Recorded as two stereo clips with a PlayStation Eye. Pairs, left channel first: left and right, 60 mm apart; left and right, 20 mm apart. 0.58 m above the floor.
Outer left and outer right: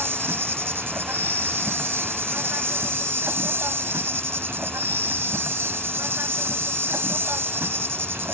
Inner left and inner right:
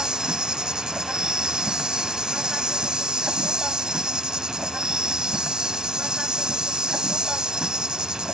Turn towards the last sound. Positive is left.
turn(degrees=-45)  # may be behind; listen again after turning